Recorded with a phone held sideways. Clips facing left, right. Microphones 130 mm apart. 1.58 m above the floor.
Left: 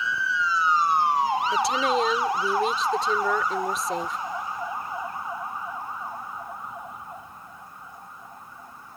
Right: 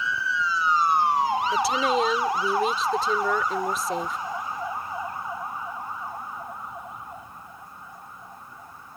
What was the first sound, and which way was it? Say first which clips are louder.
A woman speaking: even; centre (ahead or behind).